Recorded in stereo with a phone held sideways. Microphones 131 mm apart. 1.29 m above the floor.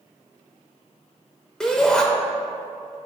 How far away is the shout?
About 0.8 m.